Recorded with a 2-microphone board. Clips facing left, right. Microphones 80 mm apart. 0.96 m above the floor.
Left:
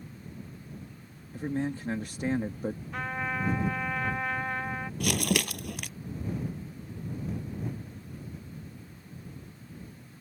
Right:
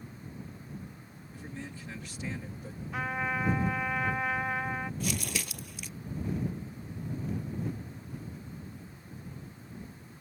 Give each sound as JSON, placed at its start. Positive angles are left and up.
{"t": 1.3, "sound": "a man speaking", "side_deg": 50}
{"t": 2.9, "sound": "a trumpet", "side_deg": -5}
{"t": 5.0, "sound": "crumpling", "side_deg": 70}